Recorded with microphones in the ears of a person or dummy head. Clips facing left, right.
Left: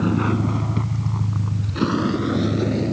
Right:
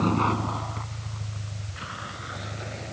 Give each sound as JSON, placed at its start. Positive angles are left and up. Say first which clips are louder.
{"t": 0.0, "sound": "a vehicle", "louder": "left 5 dB", "side_deg": 10}